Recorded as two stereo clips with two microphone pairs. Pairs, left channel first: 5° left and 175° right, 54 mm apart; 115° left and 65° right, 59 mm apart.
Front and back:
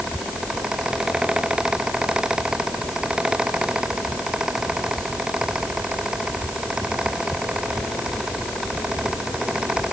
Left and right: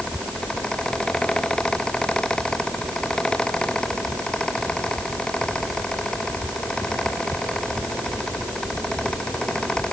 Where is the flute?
I don't hear a flute.